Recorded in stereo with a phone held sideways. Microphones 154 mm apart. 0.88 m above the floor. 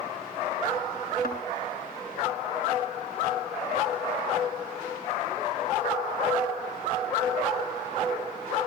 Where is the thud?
80° left, 5.5 m.